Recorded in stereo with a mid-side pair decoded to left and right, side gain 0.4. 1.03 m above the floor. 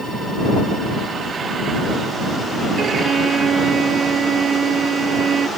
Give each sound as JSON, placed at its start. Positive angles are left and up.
{"t": 2.8, "sound": "a violin", "azimuth_deg": -50}